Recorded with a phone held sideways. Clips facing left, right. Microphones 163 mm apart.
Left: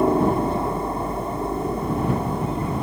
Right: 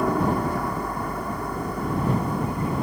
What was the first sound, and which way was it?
A helicopter, 25° left (ahead or behind).